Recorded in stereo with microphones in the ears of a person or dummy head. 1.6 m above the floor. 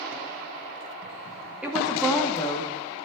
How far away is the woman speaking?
About 2 m.